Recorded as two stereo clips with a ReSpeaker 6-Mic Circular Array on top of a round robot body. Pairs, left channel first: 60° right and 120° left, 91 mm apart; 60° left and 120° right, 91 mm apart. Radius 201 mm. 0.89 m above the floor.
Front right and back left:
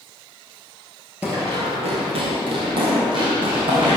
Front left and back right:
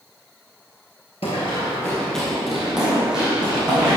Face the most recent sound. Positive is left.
turn(degrees=160)